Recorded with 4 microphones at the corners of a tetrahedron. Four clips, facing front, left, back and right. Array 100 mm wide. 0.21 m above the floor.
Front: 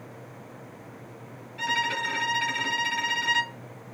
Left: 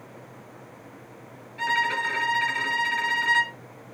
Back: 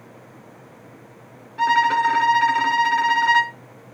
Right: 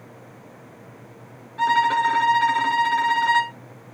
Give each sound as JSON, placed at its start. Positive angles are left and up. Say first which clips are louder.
{"t": 1.6, "sound": "a violin", "louder": "right 7 dB, back 11 dB", "azimuth_deg": -150, "distance_m": 0.7}